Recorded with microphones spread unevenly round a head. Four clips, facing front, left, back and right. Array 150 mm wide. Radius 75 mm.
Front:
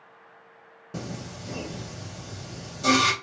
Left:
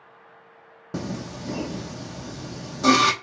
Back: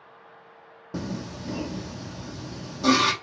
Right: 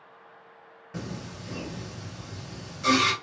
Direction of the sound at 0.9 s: 110° left.